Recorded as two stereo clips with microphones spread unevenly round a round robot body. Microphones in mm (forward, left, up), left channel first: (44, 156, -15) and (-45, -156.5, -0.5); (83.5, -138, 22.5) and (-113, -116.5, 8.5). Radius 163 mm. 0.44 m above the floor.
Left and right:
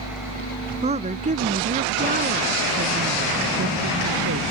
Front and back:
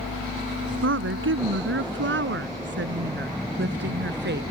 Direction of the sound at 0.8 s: 175° right.